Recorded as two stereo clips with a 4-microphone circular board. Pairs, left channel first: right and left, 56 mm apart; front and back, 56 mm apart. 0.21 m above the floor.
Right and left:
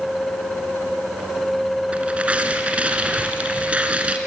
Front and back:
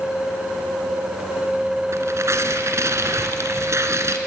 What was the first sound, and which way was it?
Tearing paper, 155° left.